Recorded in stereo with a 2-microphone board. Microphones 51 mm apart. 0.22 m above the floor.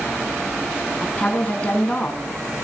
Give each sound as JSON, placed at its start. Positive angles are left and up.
{"t": 1.0, "sound": "a woman speaking", "side_deg": 25, "distance_m": 2.5}